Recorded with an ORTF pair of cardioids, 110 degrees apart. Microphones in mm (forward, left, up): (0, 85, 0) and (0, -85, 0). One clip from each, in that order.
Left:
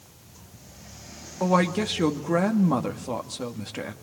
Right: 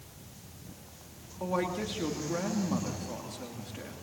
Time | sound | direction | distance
1.4 | a woman speaking | 60° left | 2.5 m